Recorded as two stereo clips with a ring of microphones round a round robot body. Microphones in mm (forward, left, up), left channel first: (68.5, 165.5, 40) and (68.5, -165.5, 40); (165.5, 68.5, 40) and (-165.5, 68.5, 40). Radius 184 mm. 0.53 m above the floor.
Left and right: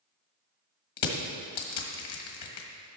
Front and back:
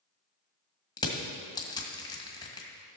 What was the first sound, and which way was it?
Crushing, 80° left.